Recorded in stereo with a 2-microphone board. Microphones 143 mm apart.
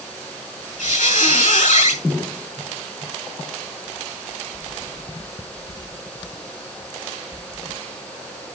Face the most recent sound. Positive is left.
turn(degrees=70)  # may be behind; listen again after turning